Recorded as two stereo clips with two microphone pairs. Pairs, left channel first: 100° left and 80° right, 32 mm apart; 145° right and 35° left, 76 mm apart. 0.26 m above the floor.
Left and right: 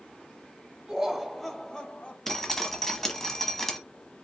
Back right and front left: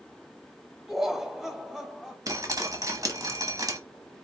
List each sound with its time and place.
0.9 s laughter: 45° right, 1.0 m; by 2.2 s 120° left, 1.2 m
2.3 s dripping: 25° left, 1.0 m